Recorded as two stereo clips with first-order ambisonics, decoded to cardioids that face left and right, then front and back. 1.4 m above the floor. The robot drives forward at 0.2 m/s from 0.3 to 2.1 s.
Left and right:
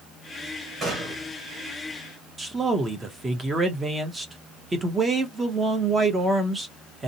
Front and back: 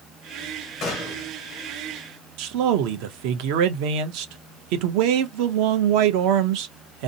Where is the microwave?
No microwave in this recording.